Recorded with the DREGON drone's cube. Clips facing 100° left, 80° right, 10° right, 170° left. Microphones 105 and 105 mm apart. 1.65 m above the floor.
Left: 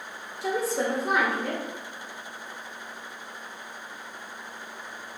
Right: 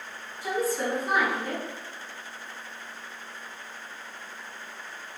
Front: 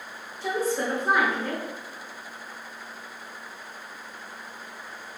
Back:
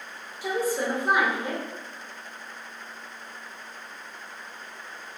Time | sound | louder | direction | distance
0.4 | a woman speaking | left 1 dB, even | 95° left | 0.7 m